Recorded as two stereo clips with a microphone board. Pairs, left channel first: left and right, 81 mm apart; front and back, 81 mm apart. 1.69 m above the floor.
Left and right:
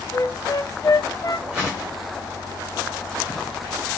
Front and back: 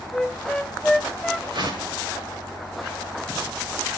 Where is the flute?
80° left, 0.8 m.